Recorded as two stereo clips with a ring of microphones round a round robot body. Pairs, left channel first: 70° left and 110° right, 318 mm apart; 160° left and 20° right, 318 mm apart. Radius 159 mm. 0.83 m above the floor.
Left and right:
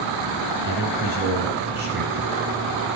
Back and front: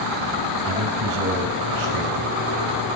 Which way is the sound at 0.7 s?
50° right.